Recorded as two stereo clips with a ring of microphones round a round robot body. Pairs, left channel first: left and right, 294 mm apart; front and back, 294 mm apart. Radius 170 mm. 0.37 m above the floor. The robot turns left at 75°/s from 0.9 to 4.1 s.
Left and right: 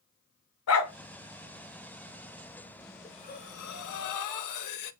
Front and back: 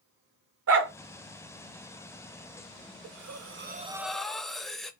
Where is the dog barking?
135° left, 1.2 m.